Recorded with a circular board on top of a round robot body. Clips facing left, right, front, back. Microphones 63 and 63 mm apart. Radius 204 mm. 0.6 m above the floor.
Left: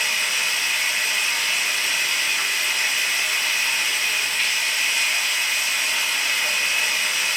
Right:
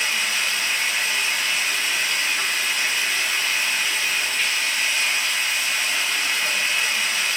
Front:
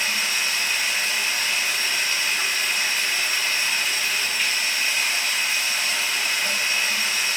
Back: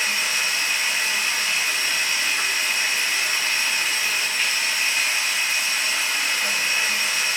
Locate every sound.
0.0 s running water: 175° left, 1.5 m